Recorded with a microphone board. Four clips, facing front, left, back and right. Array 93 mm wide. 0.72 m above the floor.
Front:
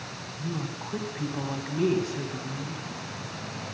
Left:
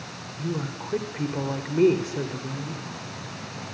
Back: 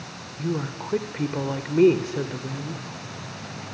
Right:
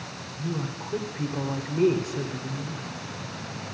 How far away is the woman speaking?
About 2 m.